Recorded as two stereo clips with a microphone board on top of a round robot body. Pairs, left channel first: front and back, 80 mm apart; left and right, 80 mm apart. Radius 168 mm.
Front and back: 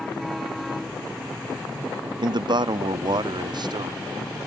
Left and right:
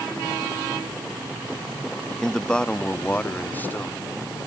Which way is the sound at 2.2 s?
175° left.